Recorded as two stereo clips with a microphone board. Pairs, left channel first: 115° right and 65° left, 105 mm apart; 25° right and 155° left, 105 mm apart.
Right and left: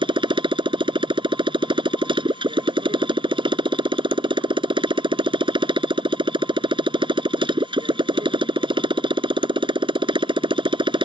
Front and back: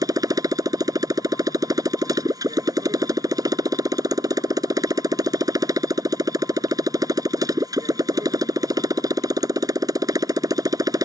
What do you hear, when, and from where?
0.0 s a motorcycle: 105° left